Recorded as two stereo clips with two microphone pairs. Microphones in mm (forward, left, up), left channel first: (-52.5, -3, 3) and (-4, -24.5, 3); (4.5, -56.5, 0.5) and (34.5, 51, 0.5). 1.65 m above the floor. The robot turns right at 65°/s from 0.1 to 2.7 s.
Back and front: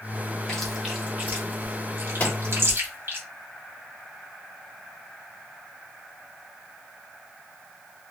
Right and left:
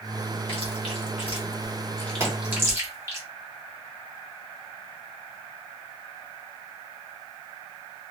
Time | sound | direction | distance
0.5 | chewing | 130° right | 1.3 m
2.2 | a pop | 130° left | 1.9 m